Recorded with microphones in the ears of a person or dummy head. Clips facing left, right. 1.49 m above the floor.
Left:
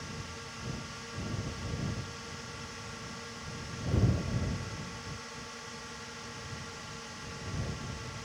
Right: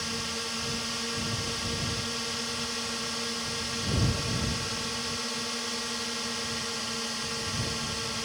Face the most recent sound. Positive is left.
turn(degrees=-70)  # may be behind; listen again after turning